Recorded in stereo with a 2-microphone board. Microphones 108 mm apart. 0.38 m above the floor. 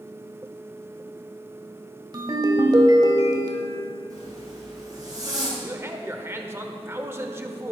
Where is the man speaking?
25° right (ahead or behind), 0.8 m.